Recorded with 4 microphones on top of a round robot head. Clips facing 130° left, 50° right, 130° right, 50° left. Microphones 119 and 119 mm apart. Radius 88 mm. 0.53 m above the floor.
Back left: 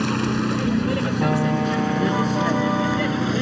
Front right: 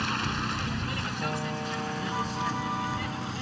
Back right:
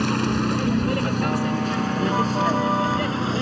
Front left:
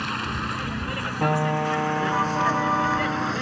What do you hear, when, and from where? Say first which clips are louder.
0.0 s a vehicle: back left 10 dB, back right 8 dB; 175° left; by 3.4 s 155° left
1.2 s a piano: back left 11 dB, even; 100° left